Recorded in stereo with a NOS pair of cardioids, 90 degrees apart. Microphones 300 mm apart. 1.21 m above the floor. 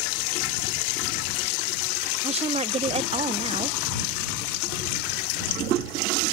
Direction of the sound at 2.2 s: 20° right.